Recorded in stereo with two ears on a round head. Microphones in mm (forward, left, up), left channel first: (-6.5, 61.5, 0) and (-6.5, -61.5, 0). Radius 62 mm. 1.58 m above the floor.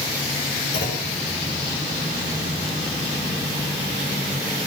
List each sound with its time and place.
0.7 s a clunk: 85° left, 9.5 m